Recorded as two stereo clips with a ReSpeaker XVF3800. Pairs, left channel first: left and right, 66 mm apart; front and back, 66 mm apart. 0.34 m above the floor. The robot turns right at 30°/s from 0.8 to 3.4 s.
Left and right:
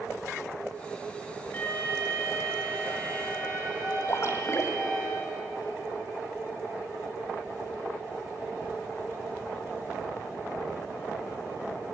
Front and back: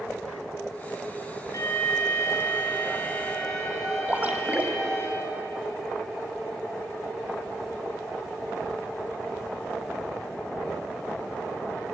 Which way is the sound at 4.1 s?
120° left.